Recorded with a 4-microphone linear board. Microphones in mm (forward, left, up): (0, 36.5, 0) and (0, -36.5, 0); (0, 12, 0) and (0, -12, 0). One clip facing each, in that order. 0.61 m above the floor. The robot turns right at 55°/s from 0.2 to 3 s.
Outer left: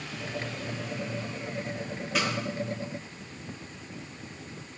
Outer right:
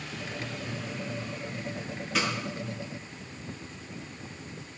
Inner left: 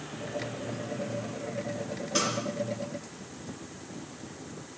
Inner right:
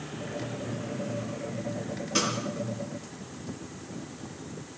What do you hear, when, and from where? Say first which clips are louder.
2.1 s a snare drum: even, inner right 1 dB; centre (ahead or behind), 5.5 m; by 2.3 s 10° left (ahead or behind), 5.5 m